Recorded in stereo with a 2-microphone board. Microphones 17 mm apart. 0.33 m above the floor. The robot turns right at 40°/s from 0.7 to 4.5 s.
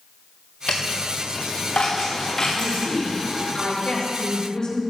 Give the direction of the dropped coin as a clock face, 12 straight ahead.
10 o'clock.